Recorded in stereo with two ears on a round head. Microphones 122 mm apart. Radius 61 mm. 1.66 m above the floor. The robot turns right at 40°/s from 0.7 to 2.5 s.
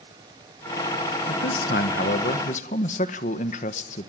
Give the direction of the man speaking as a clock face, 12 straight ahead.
10 o'clock.